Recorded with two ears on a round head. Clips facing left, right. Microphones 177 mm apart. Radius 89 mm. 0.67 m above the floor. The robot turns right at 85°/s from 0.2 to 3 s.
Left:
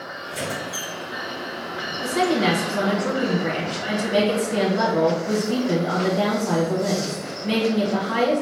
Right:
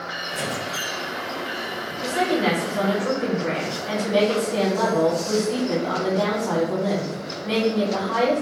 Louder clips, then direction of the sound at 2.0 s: Left 1 dB; 65° left.